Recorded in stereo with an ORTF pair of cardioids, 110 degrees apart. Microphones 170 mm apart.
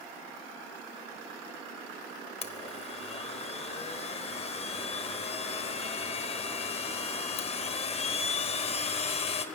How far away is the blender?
About 1.1 m.